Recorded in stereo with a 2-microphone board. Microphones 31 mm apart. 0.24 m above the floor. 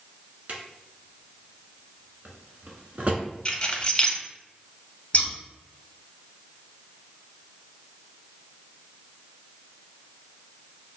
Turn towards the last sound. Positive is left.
turn(degrees=40)  # may be behind; listen again after turning